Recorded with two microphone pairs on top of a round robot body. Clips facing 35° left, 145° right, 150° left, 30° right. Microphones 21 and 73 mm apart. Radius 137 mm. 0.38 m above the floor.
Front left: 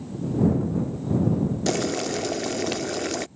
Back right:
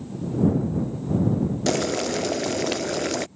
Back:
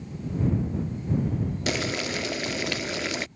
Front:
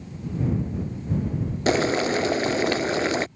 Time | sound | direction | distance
1.7 | boiling | 45° right | ?